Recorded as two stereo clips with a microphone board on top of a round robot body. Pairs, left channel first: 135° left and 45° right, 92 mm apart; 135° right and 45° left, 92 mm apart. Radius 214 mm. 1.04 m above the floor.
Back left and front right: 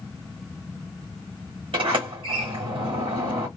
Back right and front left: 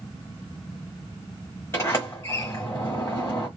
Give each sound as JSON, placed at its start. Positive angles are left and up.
{"t": 1.7, "sound": "a sliding door", "azimuth_deg": -75, "distance_m": 1.2}